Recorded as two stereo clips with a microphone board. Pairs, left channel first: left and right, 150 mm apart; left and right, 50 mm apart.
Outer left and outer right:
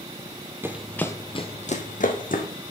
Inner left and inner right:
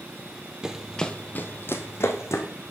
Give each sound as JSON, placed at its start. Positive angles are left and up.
{"t": 0.6, "sound": "running footsteps", "side_deg": -15, "distance_m": 0.6}